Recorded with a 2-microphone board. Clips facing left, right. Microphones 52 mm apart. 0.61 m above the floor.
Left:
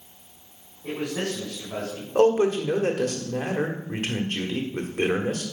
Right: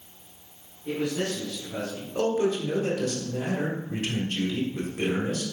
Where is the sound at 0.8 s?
80° left, 5 m.